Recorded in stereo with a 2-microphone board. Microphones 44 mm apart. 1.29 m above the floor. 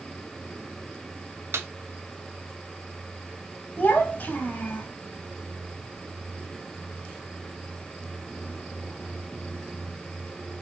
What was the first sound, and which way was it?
A snare drum, 75° right (ahead or behind).